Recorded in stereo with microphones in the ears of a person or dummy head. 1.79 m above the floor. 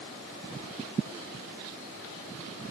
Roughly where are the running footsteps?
No running footsteps in this recording.